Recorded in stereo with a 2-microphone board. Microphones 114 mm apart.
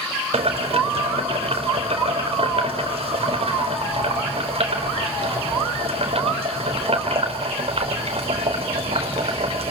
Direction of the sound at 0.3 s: 60° right (ahead or behind).